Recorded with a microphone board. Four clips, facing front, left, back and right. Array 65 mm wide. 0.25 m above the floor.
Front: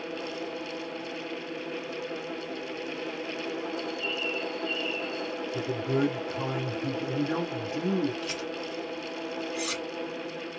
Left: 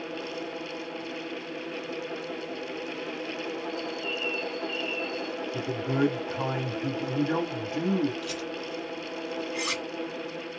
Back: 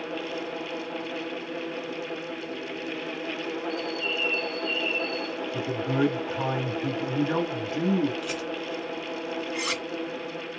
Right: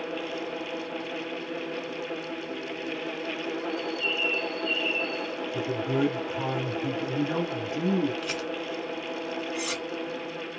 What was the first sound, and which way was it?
A bird, 125° right.